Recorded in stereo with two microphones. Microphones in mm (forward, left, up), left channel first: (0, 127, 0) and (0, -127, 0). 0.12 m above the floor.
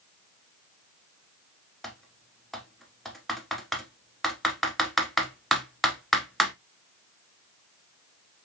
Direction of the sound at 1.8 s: Centre (ahead or behind).